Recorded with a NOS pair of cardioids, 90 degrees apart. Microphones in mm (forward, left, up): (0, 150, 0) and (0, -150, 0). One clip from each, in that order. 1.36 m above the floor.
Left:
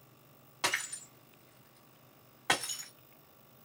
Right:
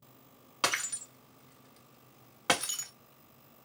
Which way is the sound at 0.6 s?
40° right.